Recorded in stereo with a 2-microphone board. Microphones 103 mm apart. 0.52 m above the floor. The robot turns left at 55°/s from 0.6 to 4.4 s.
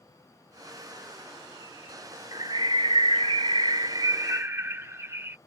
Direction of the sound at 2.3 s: 40° right.